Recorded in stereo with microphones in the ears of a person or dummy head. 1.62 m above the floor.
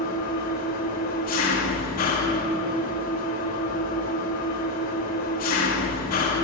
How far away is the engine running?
About 1.6 m.